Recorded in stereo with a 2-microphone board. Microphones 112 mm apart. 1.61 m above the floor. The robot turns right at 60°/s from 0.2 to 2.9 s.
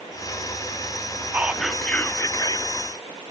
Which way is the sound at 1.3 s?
20° right.